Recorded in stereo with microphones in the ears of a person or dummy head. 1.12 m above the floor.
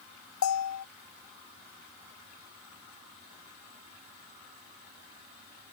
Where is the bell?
85° left.